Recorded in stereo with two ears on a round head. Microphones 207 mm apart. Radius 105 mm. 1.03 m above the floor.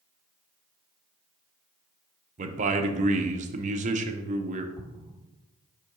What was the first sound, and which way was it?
A man speaking, 35° right (ahead or behind).